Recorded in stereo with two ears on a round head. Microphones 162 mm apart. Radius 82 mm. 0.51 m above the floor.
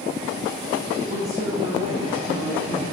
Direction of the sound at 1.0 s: 20° right (ahead or behind).